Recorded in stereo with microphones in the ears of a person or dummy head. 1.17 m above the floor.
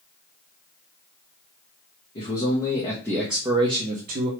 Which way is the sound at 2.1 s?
35° left (ahead or behind).